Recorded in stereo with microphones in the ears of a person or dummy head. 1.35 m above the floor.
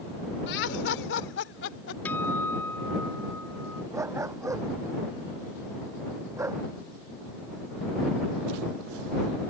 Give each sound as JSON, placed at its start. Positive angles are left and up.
{"t": 0.5, "sound": "laughter", "side_deg": 75}
{"t": 2.0, "sound": "a guitar", "side_deg": 10}
{"t": 3.9, "sound": "a dog barking", "side_deg": -10}